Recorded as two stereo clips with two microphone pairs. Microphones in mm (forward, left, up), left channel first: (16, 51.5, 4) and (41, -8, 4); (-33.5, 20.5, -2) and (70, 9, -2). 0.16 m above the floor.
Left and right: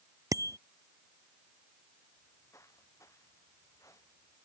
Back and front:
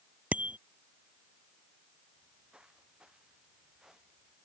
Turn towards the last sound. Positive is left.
turn(degrees=80)